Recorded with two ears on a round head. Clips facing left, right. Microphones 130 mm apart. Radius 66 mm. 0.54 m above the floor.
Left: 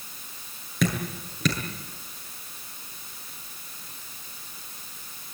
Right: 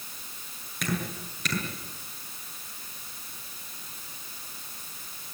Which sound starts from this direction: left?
Dripping, at 0.8 s.